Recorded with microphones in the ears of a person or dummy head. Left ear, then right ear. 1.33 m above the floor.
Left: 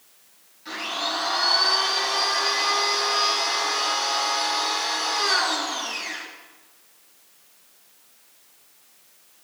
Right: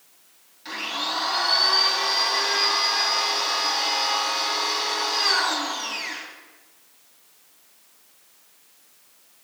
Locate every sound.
0.7 s a blender: 25° right (ahead or behind), 6.5 m